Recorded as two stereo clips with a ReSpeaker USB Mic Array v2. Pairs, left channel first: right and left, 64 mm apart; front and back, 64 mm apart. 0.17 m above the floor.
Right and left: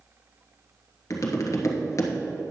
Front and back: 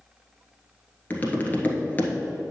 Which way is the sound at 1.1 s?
60° right.